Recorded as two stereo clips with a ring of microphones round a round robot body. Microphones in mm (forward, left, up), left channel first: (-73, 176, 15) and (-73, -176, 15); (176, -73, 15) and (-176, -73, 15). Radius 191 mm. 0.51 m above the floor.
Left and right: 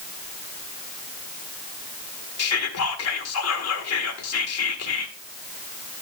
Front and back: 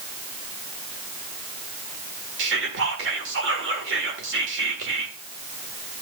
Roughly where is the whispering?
Behind left.